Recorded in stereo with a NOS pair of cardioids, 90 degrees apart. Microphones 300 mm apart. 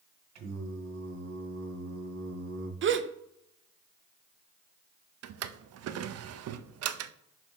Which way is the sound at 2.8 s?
40° right.